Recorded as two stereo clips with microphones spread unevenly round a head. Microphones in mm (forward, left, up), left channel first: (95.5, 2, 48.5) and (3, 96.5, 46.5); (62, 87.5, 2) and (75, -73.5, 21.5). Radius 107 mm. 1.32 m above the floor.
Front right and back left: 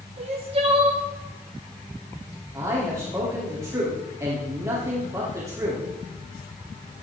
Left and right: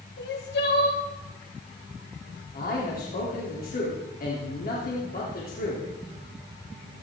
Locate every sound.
0.2 s crying: 90° left, 3 m
2.5 s a man speaking: 65° left, 3.5 m